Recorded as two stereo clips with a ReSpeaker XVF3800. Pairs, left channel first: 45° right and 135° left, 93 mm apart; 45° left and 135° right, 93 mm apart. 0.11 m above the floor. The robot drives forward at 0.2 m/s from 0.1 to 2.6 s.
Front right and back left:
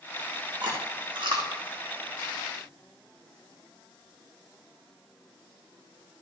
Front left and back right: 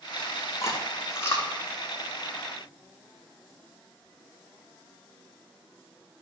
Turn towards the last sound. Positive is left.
turn(degrees=110)